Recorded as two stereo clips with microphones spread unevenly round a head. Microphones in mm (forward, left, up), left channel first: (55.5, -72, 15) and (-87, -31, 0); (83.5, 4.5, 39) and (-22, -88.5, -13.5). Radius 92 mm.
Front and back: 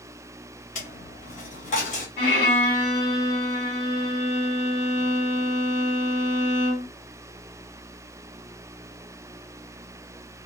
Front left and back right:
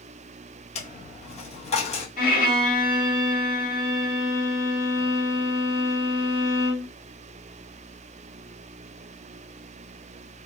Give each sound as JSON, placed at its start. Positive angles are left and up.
{"t": 0.8, "sound": "a dropped coin", "azimuth_deg": 25, "distance_m": 0.8}
{"t": 2.2, "sound": "a violin", "azimuth_deg": 30, "distance_m": 2.0}